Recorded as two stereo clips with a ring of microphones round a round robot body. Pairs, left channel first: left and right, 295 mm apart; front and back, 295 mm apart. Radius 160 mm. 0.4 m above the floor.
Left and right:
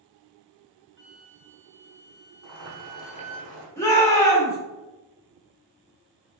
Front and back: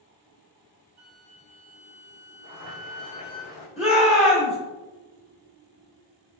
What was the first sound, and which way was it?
A flute, 130° right.